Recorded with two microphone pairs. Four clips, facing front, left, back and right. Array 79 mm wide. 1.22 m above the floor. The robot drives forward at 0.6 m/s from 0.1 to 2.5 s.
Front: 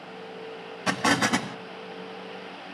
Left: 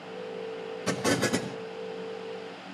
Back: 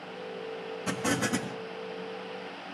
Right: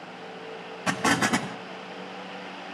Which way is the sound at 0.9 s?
35° right.